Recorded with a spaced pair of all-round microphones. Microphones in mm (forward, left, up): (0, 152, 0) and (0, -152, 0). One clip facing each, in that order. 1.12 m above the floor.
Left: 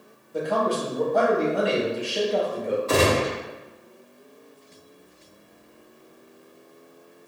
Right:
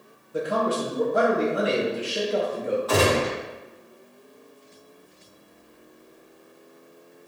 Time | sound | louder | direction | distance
0.3 | a man speaking | even | 15° right (ahead or behind) | 0.7 m
2.9 | a gunshot | left 1 dB | 30° left (ahead or behind) | 1.2 m